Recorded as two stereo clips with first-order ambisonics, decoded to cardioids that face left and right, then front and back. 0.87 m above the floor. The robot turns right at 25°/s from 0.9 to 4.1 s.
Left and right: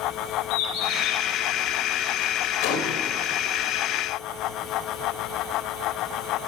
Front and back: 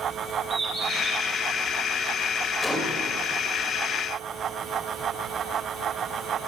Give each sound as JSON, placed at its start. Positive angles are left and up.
{"t": 0.5, "sound": "a bird", "azimuth_deg": 100, "distance_m": 5.0}
{"t": 2.6, "sound": "a gunshot", "azimuth_deg": 80, "distance_m": 3.5}